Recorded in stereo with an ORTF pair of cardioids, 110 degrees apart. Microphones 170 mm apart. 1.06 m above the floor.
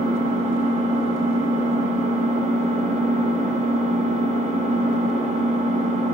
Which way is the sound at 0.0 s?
40° right.